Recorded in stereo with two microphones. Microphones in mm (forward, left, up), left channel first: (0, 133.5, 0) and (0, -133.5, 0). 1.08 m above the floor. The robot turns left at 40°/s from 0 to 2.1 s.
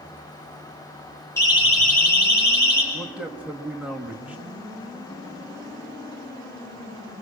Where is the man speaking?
5° right (ahead or behind), 2.5 m.